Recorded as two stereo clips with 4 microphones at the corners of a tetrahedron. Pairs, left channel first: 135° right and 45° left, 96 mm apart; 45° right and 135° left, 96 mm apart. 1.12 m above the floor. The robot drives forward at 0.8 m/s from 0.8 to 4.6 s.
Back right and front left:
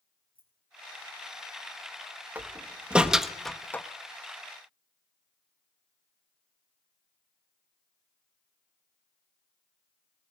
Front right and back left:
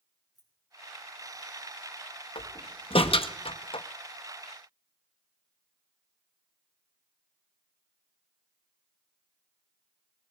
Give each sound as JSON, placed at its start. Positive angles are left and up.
{"t": 0.3, "sound": "keys jangling", "azimuth_deg": 45, "distance_m": 4.5}
{"t": 2.4, "sound": "a door slam", "azimuth_deg": -25, "distance_m": 1.6}